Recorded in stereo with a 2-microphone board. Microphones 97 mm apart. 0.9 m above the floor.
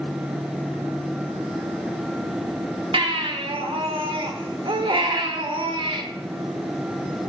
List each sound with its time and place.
2.9 s a baby crying: 65° right (ahead or behind), 1.2 m